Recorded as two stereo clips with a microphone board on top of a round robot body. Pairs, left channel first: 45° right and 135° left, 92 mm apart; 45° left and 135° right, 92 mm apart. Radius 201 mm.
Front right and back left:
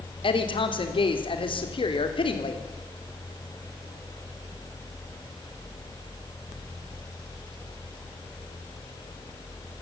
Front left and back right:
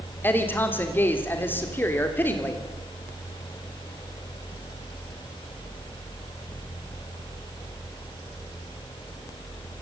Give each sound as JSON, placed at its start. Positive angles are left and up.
{"t": 0.2, "sound": "a woman speaking", "azimuth_deg": -25, "distance_m": 3.0}